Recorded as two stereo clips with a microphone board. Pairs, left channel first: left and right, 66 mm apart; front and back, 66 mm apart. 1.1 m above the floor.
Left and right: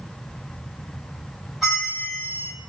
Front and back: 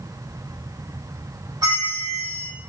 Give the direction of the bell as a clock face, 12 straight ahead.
6 o'clock.